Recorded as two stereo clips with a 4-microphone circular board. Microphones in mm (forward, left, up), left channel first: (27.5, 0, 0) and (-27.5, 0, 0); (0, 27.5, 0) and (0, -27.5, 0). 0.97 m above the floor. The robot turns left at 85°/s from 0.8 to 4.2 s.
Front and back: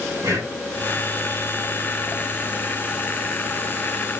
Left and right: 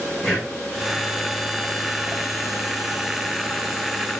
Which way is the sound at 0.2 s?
175° left.